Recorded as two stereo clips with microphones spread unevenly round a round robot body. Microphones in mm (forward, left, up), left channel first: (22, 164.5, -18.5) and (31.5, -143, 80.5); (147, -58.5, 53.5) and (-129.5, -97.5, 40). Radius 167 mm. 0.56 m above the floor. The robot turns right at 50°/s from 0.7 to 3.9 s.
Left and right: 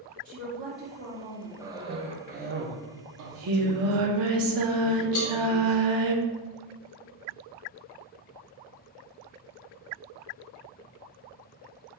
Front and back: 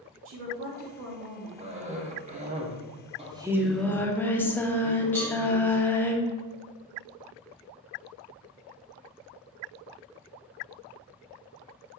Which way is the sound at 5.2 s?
130° left.